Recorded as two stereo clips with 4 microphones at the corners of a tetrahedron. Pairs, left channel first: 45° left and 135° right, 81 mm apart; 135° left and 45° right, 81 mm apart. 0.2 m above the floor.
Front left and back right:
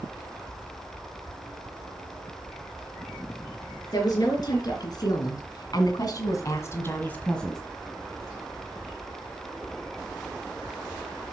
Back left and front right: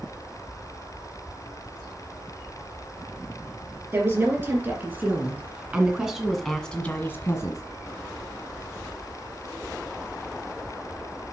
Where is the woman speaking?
10° left, 4 m; by 7.6 s 130° left, 1.8 m.